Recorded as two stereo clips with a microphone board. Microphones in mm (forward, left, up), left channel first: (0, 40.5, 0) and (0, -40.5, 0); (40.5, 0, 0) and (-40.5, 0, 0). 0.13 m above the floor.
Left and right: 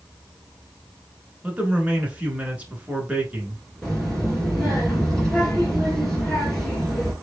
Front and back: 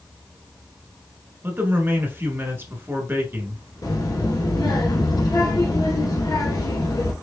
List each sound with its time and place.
1.4 s a man speaking: 145° right, 1.4 m
3.8 s a child speaking: 5° left, 1.6 m